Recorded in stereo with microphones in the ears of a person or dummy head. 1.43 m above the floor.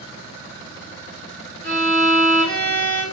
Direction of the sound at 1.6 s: 55° right (ahead or behind).